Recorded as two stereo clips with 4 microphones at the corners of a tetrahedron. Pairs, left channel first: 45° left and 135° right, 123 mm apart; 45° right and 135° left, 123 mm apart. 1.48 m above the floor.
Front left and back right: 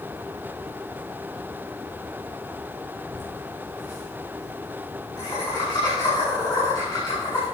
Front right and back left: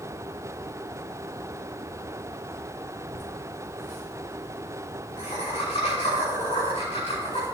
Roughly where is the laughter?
Ahead.